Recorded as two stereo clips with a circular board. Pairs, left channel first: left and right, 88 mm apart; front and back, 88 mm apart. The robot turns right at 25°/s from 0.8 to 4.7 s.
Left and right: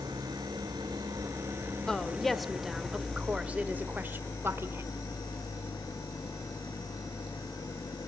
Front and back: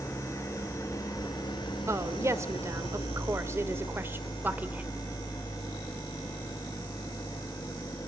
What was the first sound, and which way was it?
An engine running, 55° right.